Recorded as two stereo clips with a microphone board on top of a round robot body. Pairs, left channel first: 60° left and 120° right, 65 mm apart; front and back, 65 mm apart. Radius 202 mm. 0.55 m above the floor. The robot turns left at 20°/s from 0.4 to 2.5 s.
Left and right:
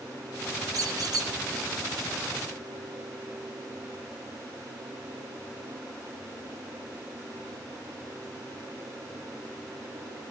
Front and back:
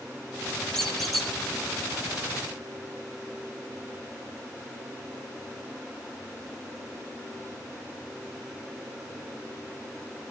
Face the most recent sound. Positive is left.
turn(degrees=-115)